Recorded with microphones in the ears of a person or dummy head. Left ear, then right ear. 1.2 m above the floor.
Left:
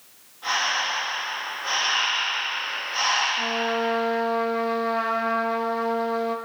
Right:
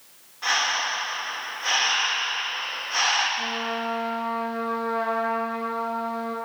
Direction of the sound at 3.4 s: 30° left (ahead or behind).